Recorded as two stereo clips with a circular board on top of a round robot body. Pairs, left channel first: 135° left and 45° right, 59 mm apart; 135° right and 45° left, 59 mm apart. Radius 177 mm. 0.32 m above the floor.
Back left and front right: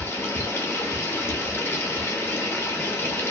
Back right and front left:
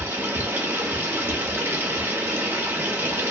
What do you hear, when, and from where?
0.0 s running water: 95° left, 1.1 m